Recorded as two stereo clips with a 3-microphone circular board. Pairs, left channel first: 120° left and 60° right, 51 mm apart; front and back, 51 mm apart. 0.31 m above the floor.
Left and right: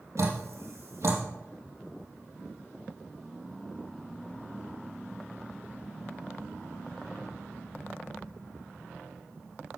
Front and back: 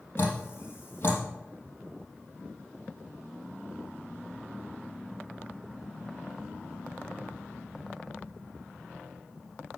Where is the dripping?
45° right, 4 m.